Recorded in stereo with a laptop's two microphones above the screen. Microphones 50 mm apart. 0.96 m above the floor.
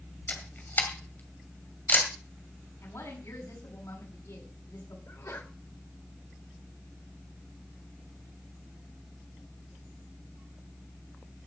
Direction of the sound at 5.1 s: 70° left (ahead or behind).